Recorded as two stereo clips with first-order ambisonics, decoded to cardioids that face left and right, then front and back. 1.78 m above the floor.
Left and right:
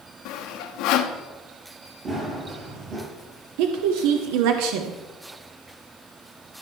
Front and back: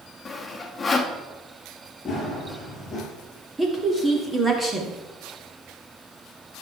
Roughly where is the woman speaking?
Right.